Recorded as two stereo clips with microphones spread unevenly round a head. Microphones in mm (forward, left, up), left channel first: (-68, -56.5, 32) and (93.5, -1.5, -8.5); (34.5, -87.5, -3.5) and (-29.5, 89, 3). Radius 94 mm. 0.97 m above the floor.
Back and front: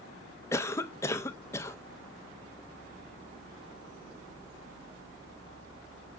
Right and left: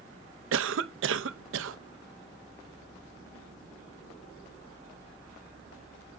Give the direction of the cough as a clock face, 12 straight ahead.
8 o'clock.